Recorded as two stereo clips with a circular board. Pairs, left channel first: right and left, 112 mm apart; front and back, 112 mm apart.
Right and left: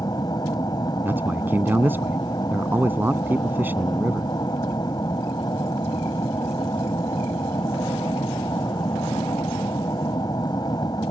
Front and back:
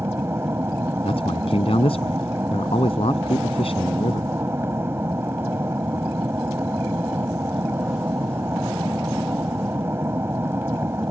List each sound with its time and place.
0.0 s an aircraft: 120° right
1.1 s a man speaking: 20° left